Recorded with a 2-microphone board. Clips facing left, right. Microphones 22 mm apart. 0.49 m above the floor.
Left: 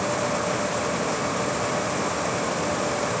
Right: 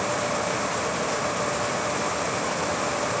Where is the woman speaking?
I don't hear a woman speaking.